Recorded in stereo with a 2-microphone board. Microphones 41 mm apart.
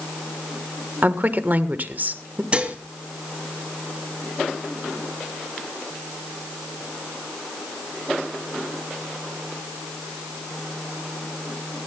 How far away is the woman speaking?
About 1.4 m.